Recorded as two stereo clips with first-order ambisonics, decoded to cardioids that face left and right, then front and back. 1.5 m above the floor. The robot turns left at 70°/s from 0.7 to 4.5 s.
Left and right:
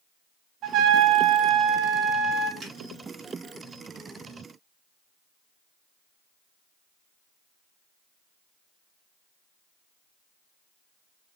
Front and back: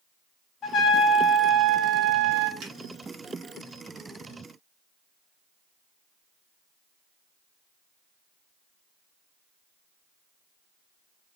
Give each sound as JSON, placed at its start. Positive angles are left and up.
{"t": 0.6, "sound": "a trumpet", "azimuth_deg": -50, "distance_m": 0.8}
{"t": 2.6, "sound": "a finger snap", "azimuth_deg": -150, "distance_m": 2.0}